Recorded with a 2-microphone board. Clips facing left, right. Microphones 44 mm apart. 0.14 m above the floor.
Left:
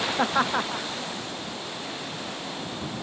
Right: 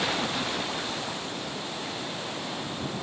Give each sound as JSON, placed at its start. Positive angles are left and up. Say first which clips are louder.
{"t": 0.2, "sound": "laughter", "louder": "left 6 dB", "side_deg": 80}